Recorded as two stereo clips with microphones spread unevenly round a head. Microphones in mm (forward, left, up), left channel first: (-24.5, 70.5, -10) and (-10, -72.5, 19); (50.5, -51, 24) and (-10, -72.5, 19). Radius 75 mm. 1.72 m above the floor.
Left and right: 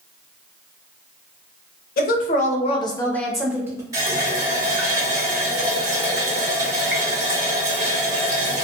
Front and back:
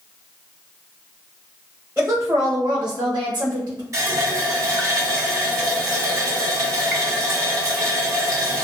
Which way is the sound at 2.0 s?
120° left.